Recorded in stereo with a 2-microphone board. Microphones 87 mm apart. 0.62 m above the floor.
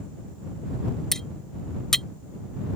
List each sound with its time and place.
1.1 s cutlery clinking: 5° left (ahead or behind)